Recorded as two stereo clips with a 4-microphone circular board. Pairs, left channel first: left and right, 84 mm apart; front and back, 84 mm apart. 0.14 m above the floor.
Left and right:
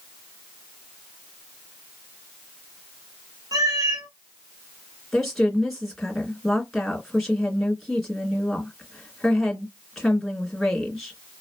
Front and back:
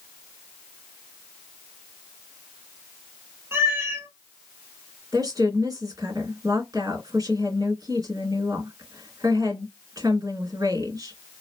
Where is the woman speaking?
Straight behind, 2 m.